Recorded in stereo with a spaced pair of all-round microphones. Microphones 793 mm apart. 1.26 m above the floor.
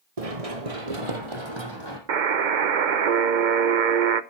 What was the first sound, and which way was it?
Running footsteps, 45° right (ahead or behind).